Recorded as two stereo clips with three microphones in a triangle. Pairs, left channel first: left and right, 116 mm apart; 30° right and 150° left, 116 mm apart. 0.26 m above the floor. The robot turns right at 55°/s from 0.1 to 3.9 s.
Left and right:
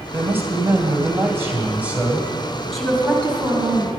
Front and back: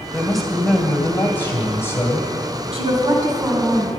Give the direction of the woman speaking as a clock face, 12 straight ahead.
6 o'clock.